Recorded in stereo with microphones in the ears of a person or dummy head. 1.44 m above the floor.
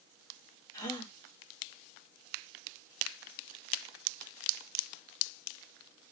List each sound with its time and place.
0.7 s a gasp: 25° left (ahead or behind), 1.2 m